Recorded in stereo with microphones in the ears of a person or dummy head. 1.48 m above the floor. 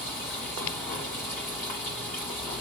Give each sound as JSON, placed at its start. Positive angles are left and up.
{"t": 0.0, "sound": "running water", "side_deg": 10, "distance_m": 1.8}